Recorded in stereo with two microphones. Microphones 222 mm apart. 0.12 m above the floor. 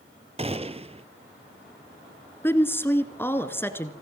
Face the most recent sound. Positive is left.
turn(degrees=10)  # may be behind; listen again after turning